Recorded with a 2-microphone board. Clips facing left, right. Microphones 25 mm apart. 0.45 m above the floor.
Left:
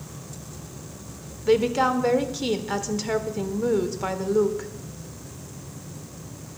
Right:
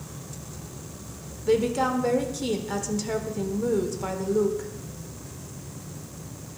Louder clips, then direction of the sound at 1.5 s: Left 3 dB; 25° left (ahead or behind).